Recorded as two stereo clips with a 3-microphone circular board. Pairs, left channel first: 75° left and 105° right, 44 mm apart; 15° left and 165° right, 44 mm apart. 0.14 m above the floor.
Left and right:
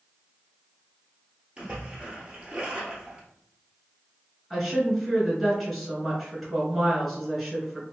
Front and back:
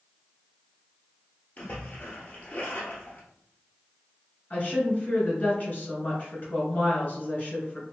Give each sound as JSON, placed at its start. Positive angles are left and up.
{"t": 1.6, "sound": "a splash", "azimuth_deg": -35, "distance_m": 1.3}
{"t": 4.5, "sound": "a woman speaking", "azimuth_deg": -15, "distance_m": 1.6}